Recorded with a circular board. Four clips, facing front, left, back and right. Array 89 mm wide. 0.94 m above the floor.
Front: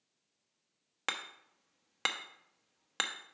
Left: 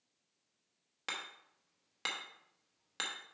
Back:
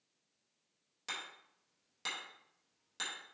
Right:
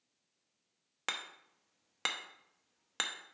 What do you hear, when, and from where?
1.1 s hammering: 25° right, 0.8 m